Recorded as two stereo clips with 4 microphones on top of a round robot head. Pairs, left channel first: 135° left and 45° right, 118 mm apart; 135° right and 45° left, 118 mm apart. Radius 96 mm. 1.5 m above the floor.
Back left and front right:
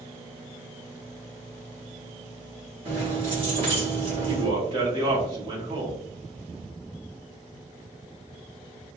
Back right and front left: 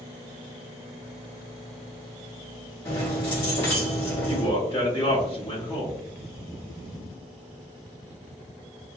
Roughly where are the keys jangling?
Right.